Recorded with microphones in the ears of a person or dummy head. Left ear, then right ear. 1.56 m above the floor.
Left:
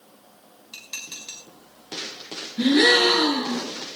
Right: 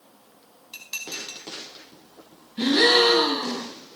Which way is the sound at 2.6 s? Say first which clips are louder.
Left 1 dB; 20° right (ahead or behind).